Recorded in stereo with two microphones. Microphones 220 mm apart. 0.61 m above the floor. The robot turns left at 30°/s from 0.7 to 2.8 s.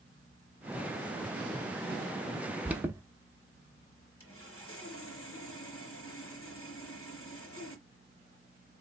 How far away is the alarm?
About 0.7 m.